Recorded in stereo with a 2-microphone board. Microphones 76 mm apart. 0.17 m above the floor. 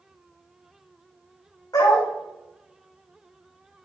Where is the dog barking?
55° left (ahead or behind), 4.5 m.